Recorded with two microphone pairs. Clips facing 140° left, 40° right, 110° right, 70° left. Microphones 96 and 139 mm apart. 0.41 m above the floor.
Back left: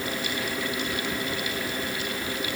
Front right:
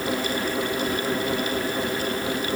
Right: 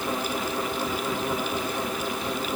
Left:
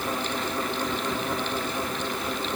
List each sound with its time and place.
Only background noise.